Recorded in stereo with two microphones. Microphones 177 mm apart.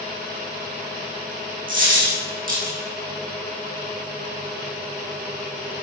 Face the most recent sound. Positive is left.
turn(degrees=-50)  # may be behind; listen again after turning